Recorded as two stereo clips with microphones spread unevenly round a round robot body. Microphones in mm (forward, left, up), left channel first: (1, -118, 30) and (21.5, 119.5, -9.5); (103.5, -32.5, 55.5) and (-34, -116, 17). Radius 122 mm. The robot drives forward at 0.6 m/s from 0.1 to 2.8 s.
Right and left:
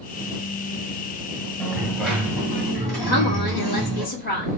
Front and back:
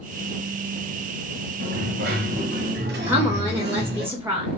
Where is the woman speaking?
120° right, 1.3 m.